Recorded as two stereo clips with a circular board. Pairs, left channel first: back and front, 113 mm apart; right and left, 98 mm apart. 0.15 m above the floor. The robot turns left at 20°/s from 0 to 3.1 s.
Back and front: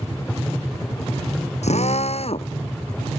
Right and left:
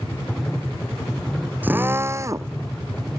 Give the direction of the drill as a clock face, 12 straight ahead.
7 o'clock.